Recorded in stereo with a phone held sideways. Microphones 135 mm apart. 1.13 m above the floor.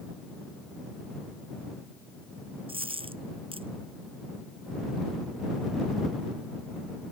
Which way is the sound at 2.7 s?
45° right (ahead or behind).